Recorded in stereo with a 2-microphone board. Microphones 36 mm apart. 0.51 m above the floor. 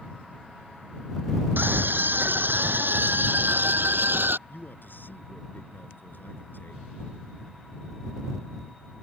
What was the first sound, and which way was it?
A scream, 80° right.